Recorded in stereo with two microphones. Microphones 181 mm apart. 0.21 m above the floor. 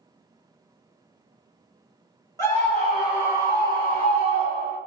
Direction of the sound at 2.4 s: 20° left (ahead or behind).